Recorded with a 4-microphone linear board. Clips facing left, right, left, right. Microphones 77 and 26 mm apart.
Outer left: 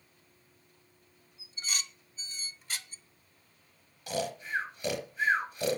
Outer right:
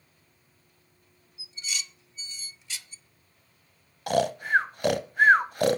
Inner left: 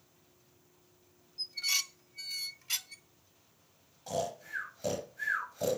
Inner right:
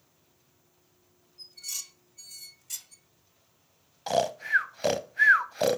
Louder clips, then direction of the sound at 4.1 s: Outer right 10 dB, inner right 10 dB; 65° right (ahead or behind).